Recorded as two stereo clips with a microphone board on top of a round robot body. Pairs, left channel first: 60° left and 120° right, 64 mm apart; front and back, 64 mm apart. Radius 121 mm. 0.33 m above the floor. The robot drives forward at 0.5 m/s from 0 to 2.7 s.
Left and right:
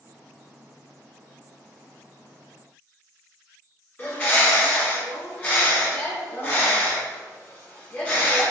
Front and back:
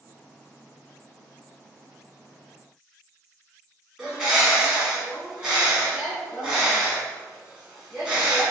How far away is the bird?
About 1.7 m.